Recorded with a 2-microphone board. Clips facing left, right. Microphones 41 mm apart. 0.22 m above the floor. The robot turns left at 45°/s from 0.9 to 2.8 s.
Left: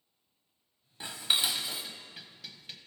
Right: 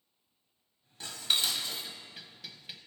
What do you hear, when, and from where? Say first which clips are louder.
1.0 s dishes clattering: left 1 dB; 20° left (ahead or behind), 0.7 m; by 2.8 s 5° right (ahead or behind), 0.7 m